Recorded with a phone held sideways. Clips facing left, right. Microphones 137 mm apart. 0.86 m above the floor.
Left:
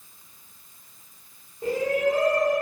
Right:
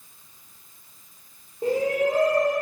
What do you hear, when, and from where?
1.6 s a shout: 35° right (ahead or behind), 3.5 m